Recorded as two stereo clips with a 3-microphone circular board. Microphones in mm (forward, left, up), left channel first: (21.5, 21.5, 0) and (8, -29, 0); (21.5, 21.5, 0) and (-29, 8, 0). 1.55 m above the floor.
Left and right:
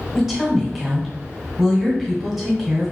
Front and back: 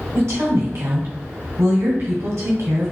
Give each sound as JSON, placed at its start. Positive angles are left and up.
{"t": 0.1, "sound": "a woman speaking", "azimuth_deg": 165, "distance_m": 1.2}